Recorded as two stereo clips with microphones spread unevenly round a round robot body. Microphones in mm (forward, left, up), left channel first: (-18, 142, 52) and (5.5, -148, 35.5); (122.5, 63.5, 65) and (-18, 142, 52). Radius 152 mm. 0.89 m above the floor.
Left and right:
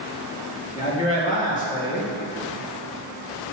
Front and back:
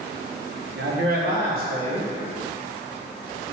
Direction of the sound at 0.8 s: 160° left.